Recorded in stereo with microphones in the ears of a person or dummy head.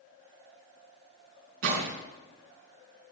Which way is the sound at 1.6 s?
65° right (ahead or behind).